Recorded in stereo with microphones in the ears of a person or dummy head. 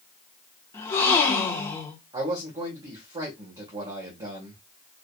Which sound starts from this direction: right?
A man speaking, at 2.1 s.